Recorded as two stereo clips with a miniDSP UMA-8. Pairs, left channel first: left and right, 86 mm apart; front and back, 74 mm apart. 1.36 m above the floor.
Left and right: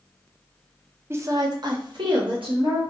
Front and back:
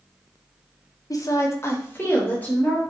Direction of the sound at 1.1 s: 30° right.